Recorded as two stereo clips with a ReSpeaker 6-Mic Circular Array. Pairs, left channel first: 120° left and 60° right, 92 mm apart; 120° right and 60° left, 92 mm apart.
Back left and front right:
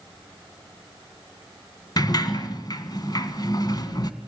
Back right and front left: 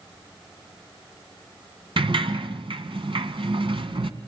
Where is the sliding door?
75° left, 1.7 m.